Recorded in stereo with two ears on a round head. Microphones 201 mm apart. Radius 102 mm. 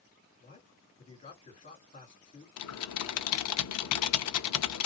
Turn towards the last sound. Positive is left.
turn(degrees=80)